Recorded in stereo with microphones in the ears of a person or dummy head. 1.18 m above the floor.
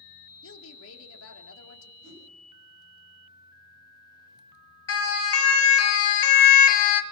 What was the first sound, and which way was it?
A woman speaking, 75° left (ahead or behind).